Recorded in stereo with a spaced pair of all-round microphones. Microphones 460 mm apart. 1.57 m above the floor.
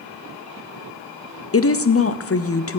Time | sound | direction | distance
1.5 | a woman speaking | 30° left (ahead or behind) | 0.5 m